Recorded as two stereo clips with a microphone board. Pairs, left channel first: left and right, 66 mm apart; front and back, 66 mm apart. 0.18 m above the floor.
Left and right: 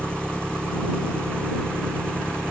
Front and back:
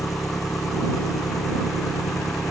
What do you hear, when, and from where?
0.0 s an engine running: 30° right